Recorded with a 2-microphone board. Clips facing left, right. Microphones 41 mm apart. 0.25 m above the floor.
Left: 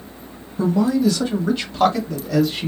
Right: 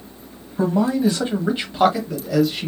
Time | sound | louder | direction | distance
0.6 | a man speaking | left 1 dB | 35° right (ahead or behind) | 1.6 m